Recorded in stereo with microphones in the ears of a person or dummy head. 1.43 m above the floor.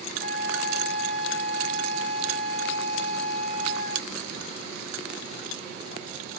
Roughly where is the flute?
Right.